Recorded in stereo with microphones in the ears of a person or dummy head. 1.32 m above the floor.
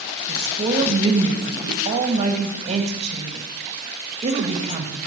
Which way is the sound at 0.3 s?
35° right (ahead or behind).